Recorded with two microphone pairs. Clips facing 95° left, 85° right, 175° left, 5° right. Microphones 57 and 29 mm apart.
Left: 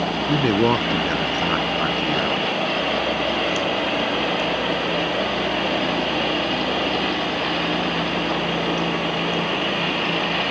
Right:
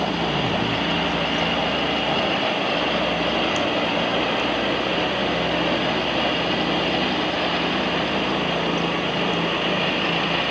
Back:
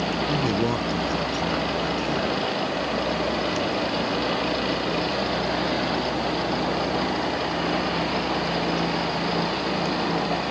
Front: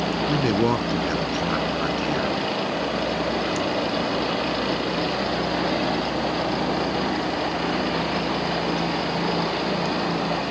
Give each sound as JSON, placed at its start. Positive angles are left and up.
{"t": 0.3, "sound": "a man speaking", "azimuth_deg": 65}